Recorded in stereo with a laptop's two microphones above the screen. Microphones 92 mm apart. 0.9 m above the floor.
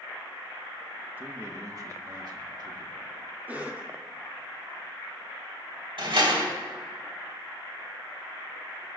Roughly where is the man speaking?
Centre.